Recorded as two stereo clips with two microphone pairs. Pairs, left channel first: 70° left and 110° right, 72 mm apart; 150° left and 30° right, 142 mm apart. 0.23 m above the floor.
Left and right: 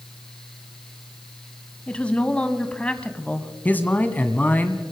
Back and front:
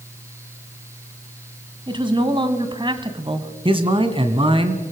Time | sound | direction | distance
1.9 | a woman speaking | 5° left | 1.8 m
3.6 | a man speaking | 10° left | 2.0 m